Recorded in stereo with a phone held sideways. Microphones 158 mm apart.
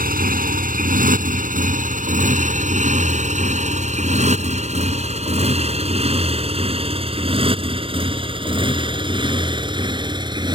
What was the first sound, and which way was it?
A motorcycle, 65° right (ahead or behind).